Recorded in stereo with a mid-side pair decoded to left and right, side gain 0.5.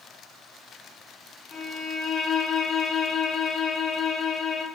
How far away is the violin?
About 0.7 m.